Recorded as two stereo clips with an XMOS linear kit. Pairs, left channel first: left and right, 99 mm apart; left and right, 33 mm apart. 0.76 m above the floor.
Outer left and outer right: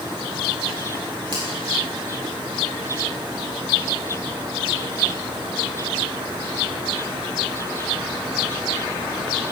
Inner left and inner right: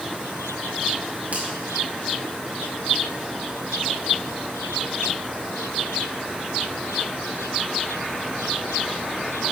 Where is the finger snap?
55° right (ahead or behind), 5.5 m.